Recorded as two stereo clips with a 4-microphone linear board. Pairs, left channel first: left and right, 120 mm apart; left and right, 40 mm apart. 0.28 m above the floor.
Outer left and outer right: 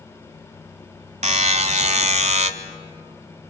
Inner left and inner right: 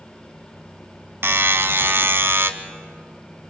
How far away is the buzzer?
About 0.9 m.